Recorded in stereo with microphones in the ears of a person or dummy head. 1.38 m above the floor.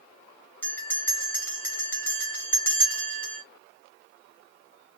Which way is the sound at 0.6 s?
10° left (ahead or behind).